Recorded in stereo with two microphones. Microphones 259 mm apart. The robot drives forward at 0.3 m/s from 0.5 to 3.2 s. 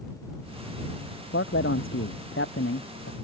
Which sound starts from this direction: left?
A man speaking, at 1.3 s.